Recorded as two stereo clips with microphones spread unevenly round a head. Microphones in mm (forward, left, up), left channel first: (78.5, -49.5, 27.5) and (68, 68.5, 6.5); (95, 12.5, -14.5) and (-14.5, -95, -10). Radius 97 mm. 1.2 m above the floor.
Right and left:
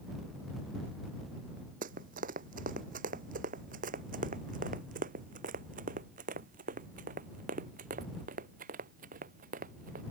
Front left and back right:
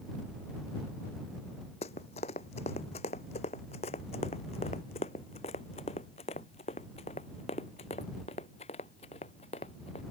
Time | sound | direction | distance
1.8 | running footsteps | 105° left | ?